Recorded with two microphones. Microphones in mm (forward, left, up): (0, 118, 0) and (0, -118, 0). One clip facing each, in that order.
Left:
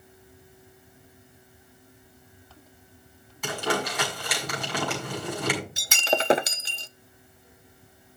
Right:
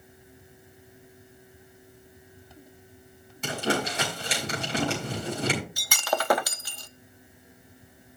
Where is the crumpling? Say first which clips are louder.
Right 1 dB; 30° right (ahead or behind), 6 m.